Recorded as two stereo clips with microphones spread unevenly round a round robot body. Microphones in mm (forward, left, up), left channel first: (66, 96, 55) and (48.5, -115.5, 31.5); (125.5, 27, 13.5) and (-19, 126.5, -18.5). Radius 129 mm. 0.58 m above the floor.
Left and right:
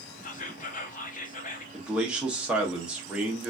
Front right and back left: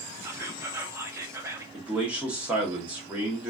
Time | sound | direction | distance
0.2 | whispering | 110° left | 0.6 m
1.7 | a man speaking | 165° right | 0.7 m